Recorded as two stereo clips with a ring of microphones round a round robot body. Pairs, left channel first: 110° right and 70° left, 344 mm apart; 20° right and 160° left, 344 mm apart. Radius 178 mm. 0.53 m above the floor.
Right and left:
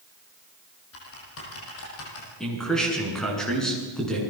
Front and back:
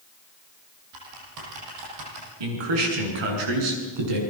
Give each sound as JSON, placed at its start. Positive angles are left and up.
{"t": 0.9, "sound": "typing on a keyboard", "azimuth_deg": -165, "distance_m": 7.0}
{"t": 2.4, "sound": "a man speaking", "azimuth_deg": 160, "distance_m": 8.0}